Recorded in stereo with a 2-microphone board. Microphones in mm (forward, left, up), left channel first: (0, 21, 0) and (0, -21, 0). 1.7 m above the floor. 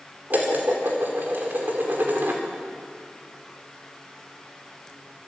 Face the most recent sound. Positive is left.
turn(degrees=-50)  # may be behind; listen again after turning